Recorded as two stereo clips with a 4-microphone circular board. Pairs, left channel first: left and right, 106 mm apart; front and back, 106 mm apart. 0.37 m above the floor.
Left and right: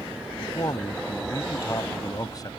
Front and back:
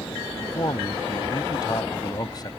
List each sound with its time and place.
0.4 s a man speaking: 45° left